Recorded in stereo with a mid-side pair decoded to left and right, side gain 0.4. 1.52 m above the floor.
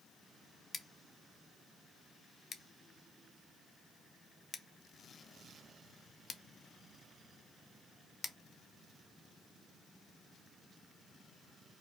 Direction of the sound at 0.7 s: 45° left.